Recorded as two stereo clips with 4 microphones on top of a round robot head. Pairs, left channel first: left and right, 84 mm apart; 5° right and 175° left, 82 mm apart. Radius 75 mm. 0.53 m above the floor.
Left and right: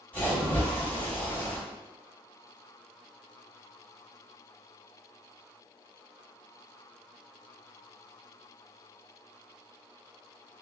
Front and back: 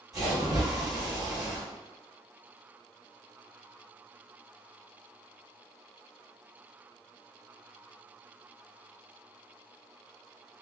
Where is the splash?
155° left, 1.7 m.